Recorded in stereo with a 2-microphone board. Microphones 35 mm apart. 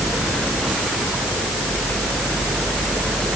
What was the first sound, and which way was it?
Only background noise.